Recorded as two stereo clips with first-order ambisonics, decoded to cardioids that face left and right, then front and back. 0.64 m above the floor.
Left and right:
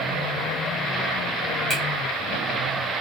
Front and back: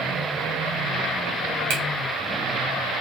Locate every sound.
1.7 s a finger snap: 170° right, 1.8 m